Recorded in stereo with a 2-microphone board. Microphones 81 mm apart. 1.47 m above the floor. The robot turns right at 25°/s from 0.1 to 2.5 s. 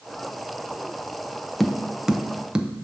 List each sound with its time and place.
1.6 s tapping: centre (ahead or behind), 0.5 m; by 2.7 s 15° right (ahead or behind), 0.5 m